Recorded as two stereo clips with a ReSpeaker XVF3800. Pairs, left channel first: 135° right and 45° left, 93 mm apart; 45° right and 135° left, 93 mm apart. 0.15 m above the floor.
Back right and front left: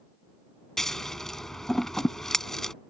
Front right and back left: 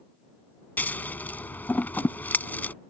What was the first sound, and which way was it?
Scissors, 55° right.